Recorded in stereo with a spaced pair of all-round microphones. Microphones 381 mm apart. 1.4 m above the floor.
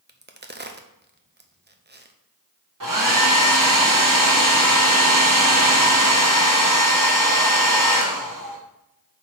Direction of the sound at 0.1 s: 25° right (ahead or behind).